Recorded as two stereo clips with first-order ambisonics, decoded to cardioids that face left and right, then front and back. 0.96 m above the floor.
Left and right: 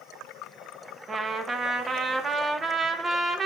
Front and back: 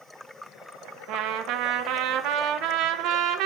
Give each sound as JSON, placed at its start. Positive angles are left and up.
{"t": 1.1, "sound": "a trumpet", "azimuth_deg": -160, "distance_m": 1.0}